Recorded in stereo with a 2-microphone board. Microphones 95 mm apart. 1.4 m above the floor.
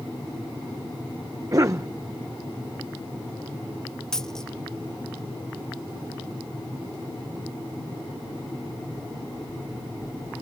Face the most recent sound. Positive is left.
turn(degrees=5)  # may be behind; listen again after turning